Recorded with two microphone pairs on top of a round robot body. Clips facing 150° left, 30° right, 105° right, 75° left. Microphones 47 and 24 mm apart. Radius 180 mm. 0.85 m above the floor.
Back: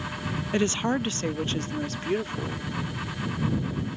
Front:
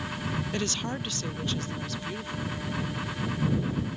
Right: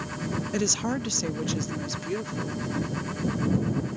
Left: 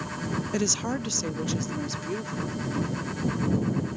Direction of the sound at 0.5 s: 175° left.